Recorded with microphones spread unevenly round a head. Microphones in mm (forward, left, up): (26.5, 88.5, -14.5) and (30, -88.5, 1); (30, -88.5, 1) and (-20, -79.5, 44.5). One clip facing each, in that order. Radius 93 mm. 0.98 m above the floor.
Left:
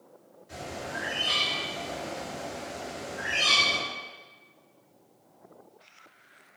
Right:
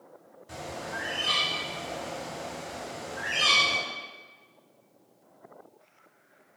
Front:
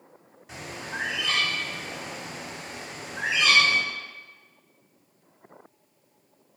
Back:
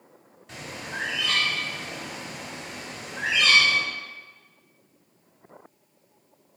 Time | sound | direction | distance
0.5 | a bird | 105° right | 1.3 m